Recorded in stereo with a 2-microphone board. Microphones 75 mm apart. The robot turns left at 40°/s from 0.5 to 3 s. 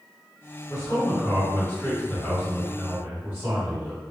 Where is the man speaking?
60° left, 1.8 m; by 4.0 s 30° right, 1.8 m.